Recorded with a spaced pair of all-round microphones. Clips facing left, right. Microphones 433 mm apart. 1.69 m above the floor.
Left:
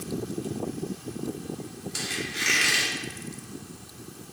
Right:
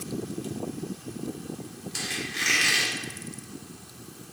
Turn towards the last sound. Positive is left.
turn(degrees=-10)  # may be behind; listen again after turning